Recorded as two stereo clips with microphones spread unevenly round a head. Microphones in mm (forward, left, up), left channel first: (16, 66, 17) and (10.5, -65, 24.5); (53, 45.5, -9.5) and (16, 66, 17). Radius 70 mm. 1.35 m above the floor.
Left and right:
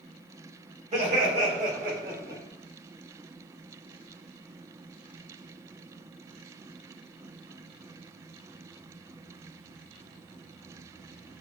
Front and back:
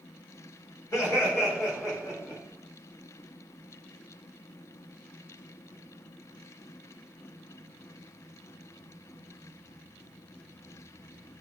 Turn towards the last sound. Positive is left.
turn(degrees=-90)